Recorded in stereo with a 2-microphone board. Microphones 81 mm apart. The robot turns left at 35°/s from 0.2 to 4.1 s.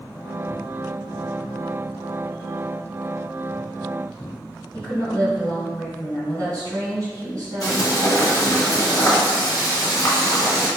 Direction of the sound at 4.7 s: 45° right (ahead or behind).